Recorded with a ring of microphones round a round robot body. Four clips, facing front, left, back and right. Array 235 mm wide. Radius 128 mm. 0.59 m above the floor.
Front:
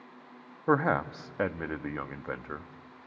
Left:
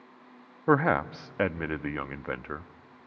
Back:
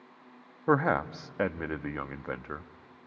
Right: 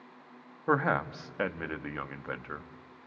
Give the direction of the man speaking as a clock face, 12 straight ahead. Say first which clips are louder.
Left 4 dB, even; 9 o'clock.